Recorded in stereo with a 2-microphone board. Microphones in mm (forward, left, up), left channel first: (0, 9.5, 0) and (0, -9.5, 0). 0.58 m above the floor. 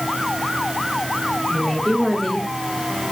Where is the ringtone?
I don't hear a ringtone.